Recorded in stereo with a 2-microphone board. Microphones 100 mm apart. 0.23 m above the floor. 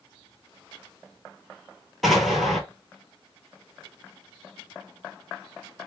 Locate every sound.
2.0 s an explosion: centre (ahead or behind), 0.8 m